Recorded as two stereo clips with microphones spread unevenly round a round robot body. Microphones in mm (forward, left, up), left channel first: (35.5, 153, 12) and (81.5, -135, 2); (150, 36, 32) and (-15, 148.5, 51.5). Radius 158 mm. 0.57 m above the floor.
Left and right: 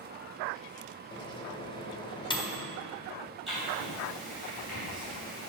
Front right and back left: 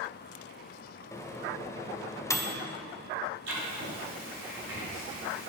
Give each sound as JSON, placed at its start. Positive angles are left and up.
{"t": 1.1, "sound": "a microwave", "azimuth_deg": 30, "distance_m": 0.7}
{"t": 3.5, "sound": "writing", "azimuth_deg": -170, "distance_m": 2.5}